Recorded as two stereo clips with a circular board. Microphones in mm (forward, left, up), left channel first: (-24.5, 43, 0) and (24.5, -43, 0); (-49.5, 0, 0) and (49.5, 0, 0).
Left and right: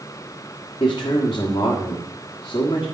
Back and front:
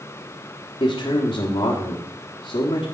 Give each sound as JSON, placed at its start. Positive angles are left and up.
{"t": 0.8, "sound": "a man speaking", "azimuth_deg": 155, "distance_m": 1.4}